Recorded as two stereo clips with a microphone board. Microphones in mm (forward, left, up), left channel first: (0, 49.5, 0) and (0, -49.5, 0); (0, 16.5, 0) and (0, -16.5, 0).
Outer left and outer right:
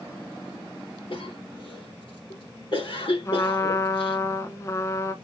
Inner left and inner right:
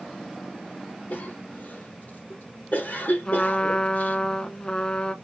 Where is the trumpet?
30° left (ahead or behind), 0.6 m.